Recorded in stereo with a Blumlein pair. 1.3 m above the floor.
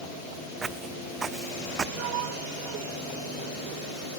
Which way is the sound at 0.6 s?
15° right.